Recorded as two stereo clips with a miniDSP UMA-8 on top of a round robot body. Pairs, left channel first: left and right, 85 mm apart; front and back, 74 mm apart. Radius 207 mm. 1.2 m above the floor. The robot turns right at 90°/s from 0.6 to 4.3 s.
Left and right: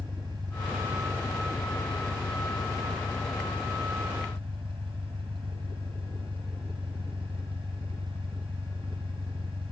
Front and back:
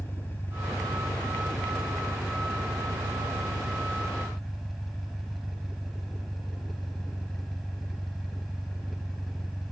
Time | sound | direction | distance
0.0 | an engine running | 60° right | ?